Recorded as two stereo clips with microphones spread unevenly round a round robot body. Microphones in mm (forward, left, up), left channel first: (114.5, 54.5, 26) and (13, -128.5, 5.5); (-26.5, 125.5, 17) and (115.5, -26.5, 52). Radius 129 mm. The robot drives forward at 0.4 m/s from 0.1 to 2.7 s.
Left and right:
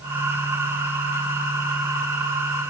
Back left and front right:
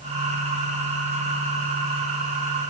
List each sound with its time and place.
Only background noise.